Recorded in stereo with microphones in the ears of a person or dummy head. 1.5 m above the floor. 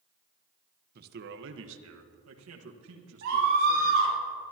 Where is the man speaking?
50° right (ahead or behind), 1.1 m; by 4.2 s 70° right (ahead or behind), 2.5 m.